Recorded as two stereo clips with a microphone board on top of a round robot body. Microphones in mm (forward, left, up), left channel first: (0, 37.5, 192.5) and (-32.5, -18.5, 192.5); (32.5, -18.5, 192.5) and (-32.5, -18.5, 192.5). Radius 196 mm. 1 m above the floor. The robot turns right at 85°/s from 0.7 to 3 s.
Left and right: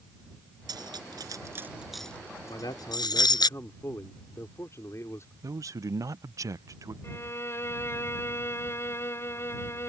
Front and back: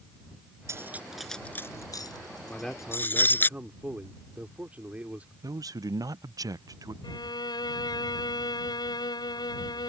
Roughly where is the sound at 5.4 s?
Behind right.